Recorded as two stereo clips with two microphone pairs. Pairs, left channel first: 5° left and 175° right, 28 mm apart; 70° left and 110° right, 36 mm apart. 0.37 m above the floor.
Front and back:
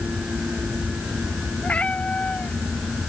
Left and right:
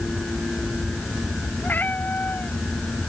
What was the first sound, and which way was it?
A cat meowing, 40° left.